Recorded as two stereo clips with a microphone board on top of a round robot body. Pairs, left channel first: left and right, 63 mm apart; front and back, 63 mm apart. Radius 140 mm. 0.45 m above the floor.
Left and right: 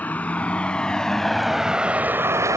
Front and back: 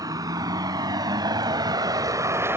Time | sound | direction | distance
0.0 | a vehicle | 155° left | ?